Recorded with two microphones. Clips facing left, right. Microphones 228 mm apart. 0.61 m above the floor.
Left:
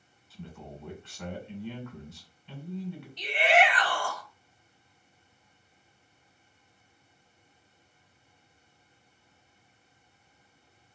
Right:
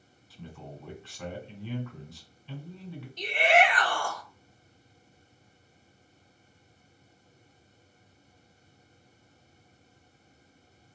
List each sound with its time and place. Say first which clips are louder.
0.3 s a man speaking: even; 5° left (ahead or behind), 2 m
3.2 s a shout: right 1 dB; 45° right (ahead or behind), 1.4 m